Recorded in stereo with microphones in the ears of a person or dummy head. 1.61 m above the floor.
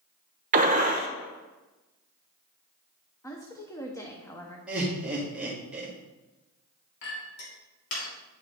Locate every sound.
0.5 s a gunshot: 45° right (ahead or behind), 1.0 m
3.2 s a woman speaking: 15° left (ahead or behind), 0.7 m
4.7 s laughter: 10° right (ahead or behind), 1.9 m
7.0 s a clink: 70° left (ahead or behind), 2.5 m